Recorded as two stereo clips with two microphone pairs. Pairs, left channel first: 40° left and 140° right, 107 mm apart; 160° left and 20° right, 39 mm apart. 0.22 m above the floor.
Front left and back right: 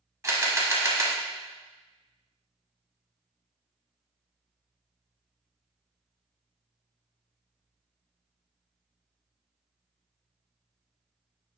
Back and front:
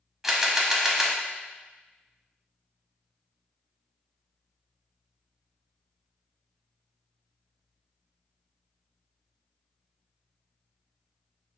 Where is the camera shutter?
105° right, 0.5 m.